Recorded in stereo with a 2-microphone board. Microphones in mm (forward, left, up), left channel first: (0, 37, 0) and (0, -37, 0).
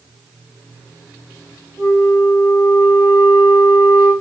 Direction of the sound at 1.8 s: 70° left (ahead or behind).